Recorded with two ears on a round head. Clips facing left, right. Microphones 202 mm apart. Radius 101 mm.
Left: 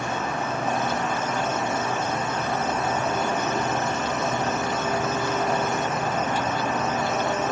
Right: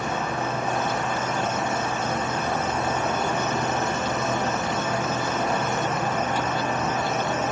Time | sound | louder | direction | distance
0.0 | an insect | right 1 dB | 55° right (ahead or behind) | 1.9 m